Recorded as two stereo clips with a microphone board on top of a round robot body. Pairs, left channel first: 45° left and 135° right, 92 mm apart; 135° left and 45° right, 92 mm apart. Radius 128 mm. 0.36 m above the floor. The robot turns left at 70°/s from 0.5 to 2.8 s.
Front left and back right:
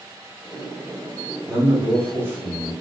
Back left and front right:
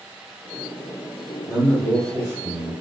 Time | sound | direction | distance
1.5 | a man speaking | 35° right | 1.6 m